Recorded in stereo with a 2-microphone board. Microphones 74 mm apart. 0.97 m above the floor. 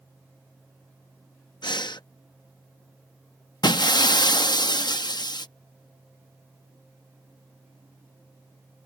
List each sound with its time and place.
1.6 s breathing: 80° left
3.6 s breaking glass: 70° left (ahead or behind)